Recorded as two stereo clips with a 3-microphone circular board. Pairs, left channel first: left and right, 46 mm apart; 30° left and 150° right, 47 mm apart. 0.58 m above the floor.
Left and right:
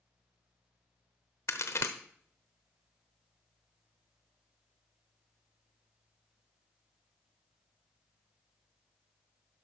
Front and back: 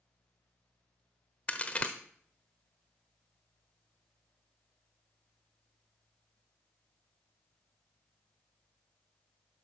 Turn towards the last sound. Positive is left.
turn(degrees=90)